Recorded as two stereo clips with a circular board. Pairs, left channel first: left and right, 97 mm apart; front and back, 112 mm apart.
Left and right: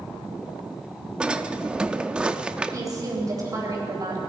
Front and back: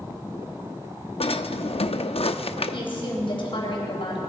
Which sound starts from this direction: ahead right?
A woman speaking, at 2.7 s.